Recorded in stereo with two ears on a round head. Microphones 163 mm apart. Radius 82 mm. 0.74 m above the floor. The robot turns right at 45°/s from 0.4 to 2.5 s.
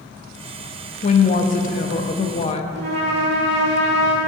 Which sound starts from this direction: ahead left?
A woman speaking, at 1.0 s.